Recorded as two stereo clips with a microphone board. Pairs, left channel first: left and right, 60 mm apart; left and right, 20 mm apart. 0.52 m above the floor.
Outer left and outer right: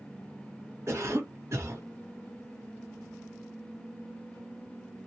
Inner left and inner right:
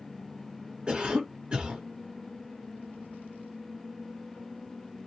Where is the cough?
50° right (ahead or behind), 1.2 m.